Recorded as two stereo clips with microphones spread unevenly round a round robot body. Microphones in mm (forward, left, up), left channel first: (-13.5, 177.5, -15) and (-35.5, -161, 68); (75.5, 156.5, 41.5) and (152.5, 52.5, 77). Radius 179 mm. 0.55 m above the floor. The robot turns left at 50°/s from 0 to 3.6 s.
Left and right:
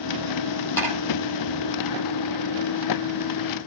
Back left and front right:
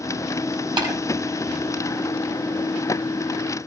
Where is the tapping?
Straight ahead, 5.5 m; by 0.9 s 5° right, 5.5 m.